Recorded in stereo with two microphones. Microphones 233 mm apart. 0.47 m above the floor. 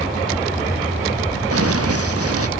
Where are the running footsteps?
85° right.